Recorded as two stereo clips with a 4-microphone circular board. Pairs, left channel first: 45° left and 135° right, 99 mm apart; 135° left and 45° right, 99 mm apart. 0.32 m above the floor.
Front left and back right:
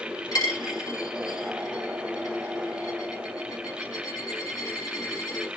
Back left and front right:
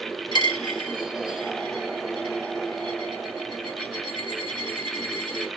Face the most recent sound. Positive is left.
turn(degrees=95)